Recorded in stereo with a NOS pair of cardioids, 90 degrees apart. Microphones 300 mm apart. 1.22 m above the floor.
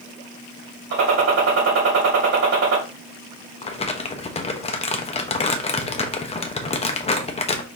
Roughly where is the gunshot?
Ahead right.